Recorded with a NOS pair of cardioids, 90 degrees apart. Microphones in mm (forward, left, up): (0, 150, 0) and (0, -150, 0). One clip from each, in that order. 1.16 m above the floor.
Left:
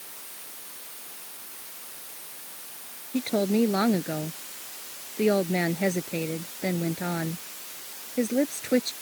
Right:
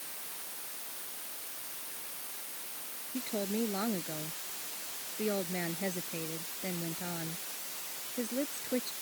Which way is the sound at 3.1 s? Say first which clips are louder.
Left 10 dB; 65° left.